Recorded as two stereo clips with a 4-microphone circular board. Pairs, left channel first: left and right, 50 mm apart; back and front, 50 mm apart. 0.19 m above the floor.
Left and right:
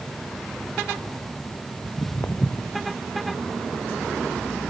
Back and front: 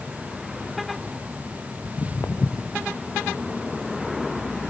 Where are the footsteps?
135° left, 1.8 m.